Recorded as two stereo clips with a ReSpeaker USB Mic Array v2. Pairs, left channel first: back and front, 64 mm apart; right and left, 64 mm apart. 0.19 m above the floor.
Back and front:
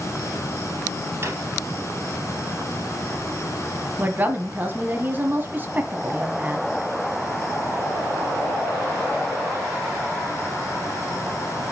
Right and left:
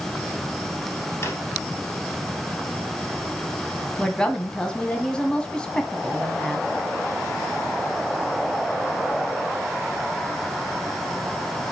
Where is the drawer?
45° right, 2 m.